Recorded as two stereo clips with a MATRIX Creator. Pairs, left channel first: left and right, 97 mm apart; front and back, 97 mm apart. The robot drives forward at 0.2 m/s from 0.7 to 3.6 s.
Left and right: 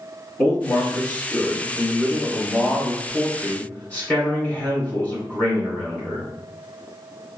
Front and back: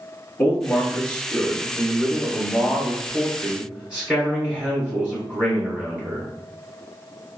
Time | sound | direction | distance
0.4 | a man speaking | 60° left | 1.3 m